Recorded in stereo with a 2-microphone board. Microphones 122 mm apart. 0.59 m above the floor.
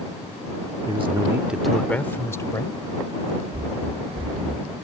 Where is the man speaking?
50° right (ahead or behind); by 2.8 s 30° left (ahead or behind).